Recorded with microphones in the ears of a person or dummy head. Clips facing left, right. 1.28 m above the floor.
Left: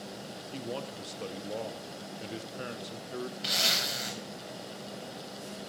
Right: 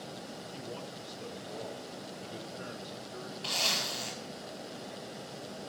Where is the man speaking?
65° left (ahead or behind), 0.8 m.